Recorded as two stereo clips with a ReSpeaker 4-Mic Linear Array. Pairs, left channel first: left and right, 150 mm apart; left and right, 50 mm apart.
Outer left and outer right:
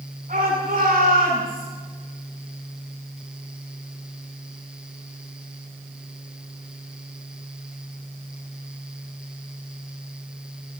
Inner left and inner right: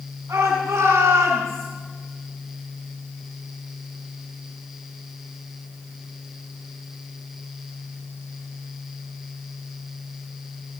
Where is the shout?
60° right (ahead or behind), 9 m.